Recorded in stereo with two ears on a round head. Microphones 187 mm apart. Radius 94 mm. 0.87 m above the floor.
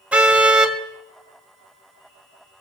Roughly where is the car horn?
Centre.